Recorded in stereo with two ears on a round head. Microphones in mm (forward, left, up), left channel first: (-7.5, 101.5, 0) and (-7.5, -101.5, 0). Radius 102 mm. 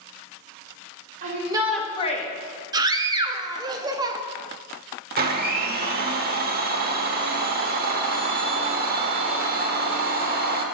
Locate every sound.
1.2 s a shout: 35° right (ahead or behind), 1.2 m; by 2.3 s 35° left (ahead or behind), 1.2 m
2.7 s a scream: 15° right (ahead or behind), 0.7 m
5.2 s a blender: 45° right (ahead or behind), 1.0 m